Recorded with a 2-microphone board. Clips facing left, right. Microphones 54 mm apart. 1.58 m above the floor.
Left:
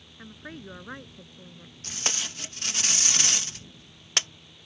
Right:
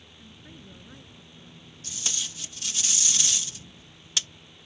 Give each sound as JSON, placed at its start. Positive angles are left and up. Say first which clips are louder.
{"t": 0.2, "sound": "a woman speaking", "louder": "left 8 dB", "side_deg": 70}
{"t": 1.8, "sound": "tape being pulled", "louder": "left 4 dB", "side_deg": 50}